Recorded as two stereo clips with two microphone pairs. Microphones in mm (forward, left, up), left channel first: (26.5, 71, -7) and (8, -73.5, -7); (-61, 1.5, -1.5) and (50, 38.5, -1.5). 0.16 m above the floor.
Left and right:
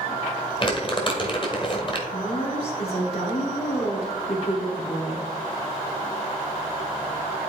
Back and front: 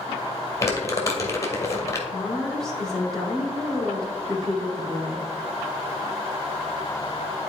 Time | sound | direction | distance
0.6 | crumpling | 135° left | 1.7 m
2.1 | a woman speaking | 115° left | 2.5 m